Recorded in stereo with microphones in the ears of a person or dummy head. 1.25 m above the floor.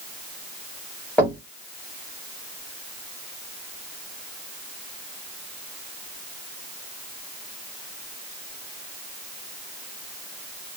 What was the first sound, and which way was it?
Knocking, 10° left (ahead or behind).